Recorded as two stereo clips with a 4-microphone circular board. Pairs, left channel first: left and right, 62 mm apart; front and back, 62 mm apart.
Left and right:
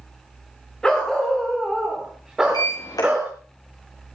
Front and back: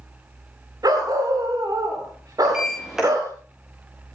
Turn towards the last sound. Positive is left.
turn(degrees=100)